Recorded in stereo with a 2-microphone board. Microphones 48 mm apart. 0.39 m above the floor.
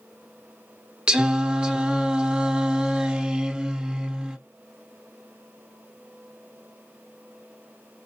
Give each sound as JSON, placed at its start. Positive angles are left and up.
{"t": 1.1, "sound": "singing", "side_deg": -20, "distance_m": 0.5}